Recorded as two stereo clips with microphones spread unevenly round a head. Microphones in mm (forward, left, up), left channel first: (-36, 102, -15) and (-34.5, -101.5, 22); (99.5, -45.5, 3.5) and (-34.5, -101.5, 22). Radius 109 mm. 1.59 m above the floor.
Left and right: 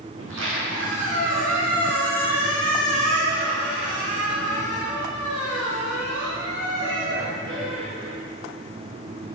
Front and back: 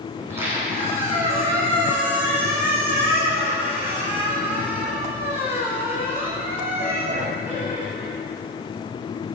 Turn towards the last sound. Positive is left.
turn(degrees=-90)